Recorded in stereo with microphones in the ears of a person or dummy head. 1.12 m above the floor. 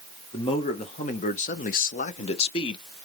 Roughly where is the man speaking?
Left.